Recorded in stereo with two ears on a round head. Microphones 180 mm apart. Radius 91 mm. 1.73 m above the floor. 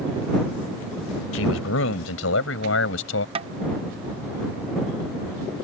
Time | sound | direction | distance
1.3 | a man speaking | 70° left (ahead or behind) | ?
3.4 | tapping | 30° right (ahead or behind) | ?